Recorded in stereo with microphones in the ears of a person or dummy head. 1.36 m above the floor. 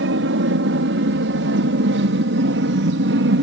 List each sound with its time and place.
0.0 s an aircraft: 65° right (ahead or behind); by 3.4 s 60° right (ahead or behind)